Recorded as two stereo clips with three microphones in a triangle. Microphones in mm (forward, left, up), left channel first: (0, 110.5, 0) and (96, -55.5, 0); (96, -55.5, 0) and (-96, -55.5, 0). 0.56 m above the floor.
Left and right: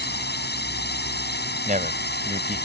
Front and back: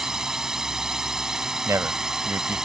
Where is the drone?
95° left.